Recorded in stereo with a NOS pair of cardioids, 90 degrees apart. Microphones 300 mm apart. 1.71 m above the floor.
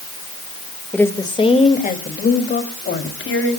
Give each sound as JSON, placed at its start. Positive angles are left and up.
{"t": 0.9, "sound": "a woman speaking", "azimuth_deg": 5, "distance_m": 2.5}